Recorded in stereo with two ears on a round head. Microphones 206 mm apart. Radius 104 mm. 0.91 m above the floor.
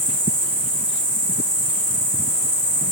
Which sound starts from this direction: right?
An insect, at 0.0 s.